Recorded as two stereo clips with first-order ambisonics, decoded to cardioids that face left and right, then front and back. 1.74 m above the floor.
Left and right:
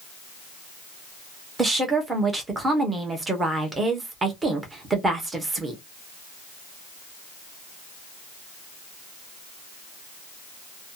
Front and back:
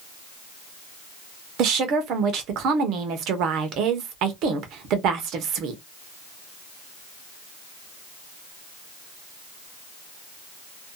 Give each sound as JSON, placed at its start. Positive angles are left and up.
{"t": 1.6, "sound": "a woman speaking", "azimuth_deg": -165, "distance_m": 0.8}